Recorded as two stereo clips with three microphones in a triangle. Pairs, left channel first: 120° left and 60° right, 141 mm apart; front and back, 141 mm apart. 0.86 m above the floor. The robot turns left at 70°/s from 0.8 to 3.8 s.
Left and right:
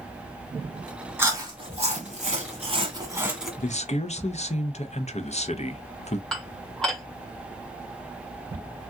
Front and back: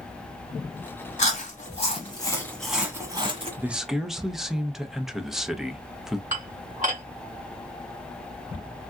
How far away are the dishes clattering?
About 1.6 m.